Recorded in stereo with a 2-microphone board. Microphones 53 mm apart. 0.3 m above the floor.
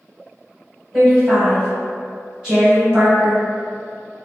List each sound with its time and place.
0.9 s a woman speaking: 10° right (ahead or behind), 1.3 m